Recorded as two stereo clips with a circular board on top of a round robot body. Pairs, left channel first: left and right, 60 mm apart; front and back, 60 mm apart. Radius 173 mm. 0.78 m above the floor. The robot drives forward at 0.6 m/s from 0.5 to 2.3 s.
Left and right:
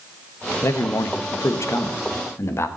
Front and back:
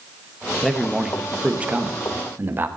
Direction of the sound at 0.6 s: 80° left.